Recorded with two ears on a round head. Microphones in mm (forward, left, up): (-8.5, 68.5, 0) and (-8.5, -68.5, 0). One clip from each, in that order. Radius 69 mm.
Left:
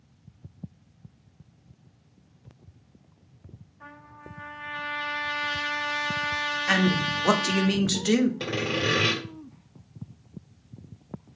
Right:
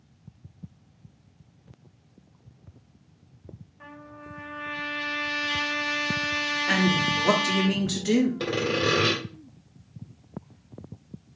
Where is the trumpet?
50° right (ahead or behind), 1.7 m.